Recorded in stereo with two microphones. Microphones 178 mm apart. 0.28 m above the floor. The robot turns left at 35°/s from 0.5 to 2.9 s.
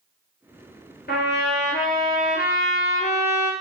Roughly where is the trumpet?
Left.